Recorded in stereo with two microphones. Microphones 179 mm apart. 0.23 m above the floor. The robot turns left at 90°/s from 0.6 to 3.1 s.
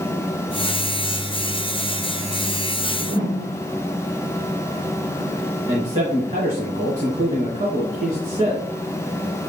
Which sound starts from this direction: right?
A man speaking, at 5.7 s.